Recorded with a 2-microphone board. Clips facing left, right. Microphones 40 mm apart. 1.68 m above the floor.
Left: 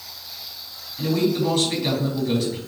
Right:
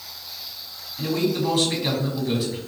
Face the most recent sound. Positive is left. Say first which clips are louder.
# left 2 dB
turn(degrees=0)  # may be behind; listen again after turning